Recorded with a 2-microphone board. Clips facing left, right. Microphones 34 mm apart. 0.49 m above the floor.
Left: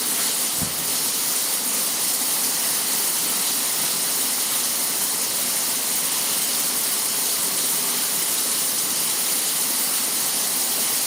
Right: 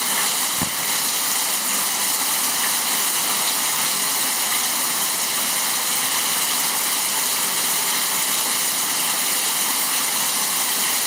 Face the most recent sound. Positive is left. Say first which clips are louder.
# right 4 dB
turn(degrees=-80)